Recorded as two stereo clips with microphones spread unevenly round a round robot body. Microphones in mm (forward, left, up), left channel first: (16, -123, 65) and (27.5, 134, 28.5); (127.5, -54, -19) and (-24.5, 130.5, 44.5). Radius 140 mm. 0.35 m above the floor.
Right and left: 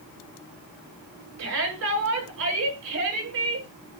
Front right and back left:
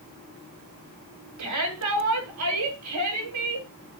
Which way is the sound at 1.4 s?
120° left.